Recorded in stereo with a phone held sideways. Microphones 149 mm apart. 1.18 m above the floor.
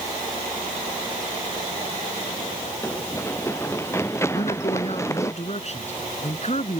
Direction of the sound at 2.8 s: 15° left (ahead or behind).